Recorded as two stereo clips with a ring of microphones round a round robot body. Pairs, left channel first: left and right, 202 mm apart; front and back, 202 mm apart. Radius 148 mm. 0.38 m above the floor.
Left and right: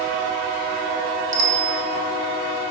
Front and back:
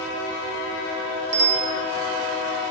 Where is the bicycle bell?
135° right, 2 m.